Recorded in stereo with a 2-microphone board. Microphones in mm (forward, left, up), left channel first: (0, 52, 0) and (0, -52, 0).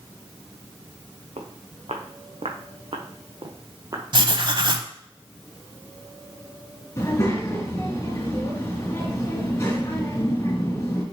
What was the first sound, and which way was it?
Footsteps, 80° right.